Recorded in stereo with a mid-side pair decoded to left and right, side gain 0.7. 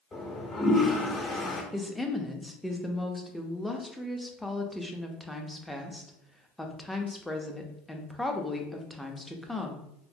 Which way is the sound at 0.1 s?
20° left.